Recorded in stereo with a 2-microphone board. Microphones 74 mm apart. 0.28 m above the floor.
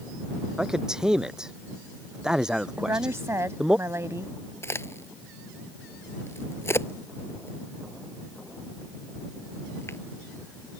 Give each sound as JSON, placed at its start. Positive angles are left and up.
{"t": 0.6, "sound": "a man speaking", "side_deg": -10}
{"t": 2.8, "sound": "a woman speaking", "side_deg": -40}
{"t": 4.6, "sound": "a crack", "side_deg": 35}